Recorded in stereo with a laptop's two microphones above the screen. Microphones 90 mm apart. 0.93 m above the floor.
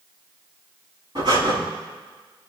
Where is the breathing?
55° right (ahead or behind), 5 m.